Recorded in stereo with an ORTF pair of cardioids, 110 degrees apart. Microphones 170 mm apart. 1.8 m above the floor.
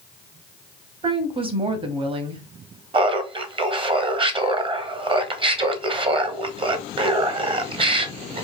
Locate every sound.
1.0 s a woman speaking: 30° right, 0.9 m
2.9 s laughter: 30° right, 0.9 m